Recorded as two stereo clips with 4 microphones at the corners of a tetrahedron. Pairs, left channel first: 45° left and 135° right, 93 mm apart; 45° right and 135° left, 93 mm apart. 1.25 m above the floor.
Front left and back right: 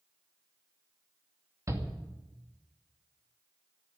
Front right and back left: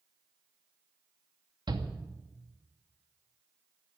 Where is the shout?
170° left, 2.5 m.